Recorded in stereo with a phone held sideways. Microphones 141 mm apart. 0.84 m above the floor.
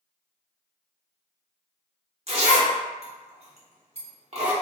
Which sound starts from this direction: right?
A zipper, at 2.3 s.